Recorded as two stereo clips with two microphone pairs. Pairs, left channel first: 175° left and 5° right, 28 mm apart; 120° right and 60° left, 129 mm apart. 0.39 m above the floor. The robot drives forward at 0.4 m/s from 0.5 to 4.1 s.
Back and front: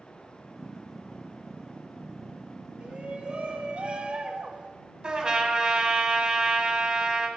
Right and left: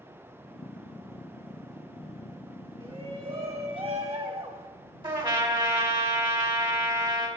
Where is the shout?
25° left, 1.7 m; by 4.7 s 40° left, 1.3 m.